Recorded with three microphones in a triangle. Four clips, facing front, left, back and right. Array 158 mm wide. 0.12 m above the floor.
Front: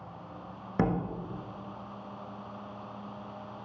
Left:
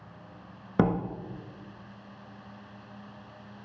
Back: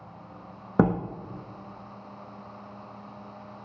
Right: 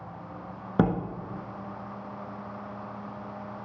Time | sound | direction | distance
0.8 | a door slam | 175° left | 1.0 m